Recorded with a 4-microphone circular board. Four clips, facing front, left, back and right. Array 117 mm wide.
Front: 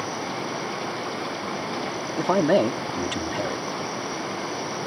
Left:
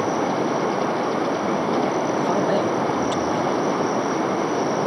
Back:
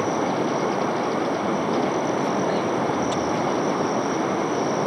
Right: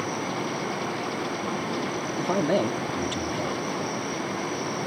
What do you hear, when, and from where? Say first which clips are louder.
0.0 s running water: left 8 dB, back 7 dB; 125° left
2.2 s a man speaking: even, front 3 dB; 5° left